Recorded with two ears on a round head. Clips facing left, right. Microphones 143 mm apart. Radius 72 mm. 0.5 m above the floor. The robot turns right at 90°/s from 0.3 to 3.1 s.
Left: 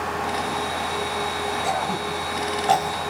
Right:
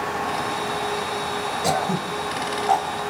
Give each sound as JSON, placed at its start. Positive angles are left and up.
{"t": 1.6, "sound": "throat clearing", "side_deg": -50, "distance_m": 2.0}